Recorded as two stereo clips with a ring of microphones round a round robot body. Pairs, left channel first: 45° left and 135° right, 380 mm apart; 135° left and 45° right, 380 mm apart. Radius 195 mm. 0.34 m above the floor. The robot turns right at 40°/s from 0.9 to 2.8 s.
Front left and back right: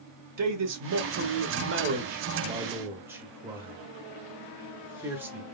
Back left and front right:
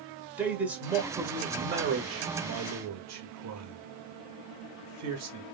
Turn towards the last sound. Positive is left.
turn(degrees=-55)